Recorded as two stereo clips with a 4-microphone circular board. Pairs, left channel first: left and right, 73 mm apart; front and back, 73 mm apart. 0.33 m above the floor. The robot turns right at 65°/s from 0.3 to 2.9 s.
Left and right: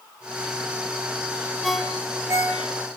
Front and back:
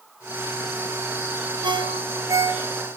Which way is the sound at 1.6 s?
Straight behind.